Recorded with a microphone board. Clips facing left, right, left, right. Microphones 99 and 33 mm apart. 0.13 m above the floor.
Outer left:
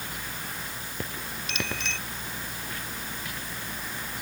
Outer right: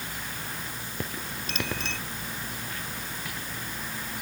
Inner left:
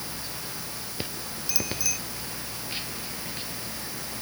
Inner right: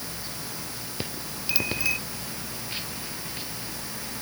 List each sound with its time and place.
1.5 s a bicycle bell: 35° right (ahead or behind)